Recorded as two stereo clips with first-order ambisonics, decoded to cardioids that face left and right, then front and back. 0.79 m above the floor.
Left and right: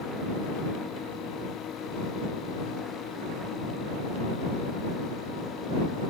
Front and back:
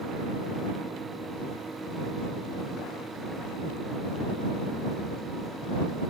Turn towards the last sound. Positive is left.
No sound to turn to.